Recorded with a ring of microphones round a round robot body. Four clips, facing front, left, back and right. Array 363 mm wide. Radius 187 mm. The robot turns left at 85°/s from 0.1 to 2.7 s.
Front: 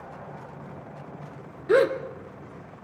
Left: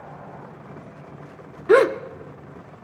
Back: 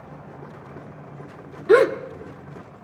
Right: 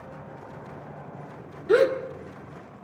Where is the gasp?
120° left, 1.3 m; by 2.0 s 95° left, 1.3 m.